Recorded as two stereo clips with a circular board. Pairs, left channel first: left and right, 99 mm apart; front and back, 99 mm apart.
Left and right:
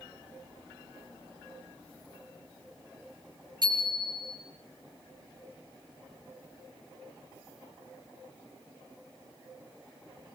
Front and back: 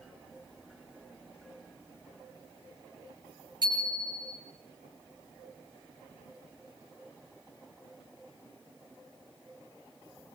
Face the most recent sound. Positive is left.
turn(degrees=-135)